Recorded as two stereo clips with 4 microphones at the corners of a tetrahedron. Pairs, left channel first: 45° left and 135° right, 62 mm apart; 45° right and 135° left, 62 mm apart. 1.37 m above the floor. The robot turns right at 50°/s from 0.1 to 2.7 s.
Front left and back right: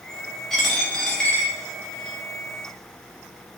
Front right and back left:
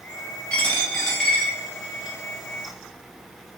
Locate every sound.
0.5 s a dropped coin: 20° right, 0.8 m; by 2.2 s 60° left, 0.8 m